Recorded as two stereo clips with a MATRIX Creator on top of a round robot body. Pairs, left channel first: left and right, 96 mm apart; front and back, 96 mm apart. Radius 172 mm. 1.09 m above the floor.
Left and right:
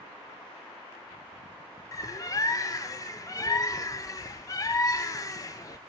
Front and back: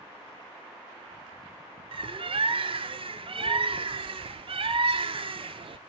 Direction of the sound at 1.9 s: 145° left.